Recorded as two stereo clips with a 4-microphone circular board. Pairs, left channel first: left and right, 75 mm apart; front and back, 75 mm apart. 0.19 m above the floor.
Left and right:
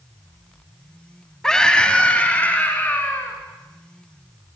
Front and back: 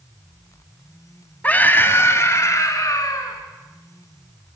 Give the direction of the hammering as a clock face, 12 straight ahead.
No hammering in this recording.